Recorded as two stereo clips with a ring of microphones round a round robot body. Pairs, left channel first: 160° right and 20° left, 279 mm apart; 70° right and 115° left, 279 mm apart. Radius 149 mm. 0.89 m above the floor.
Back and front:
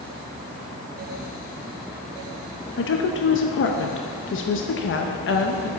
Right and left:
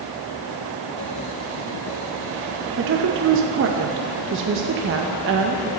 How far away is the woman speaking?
About 0.6 m.